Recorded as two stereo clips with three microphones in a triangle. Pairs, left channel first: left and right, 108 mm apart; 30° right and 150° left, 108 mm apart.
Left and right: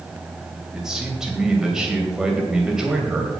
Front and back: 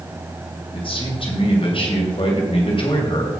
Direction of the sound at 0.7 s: 5° right.